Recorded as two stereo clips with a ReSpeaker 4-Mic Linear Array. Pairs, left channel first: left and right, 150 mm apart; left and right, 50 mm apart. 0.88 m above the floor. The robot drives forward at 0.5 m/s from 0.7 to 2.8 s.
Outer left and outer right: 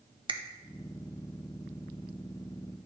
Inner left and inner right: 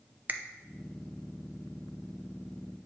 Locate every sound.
0.3 s a finger snap: 35° right (ahead or behind), 0.5 m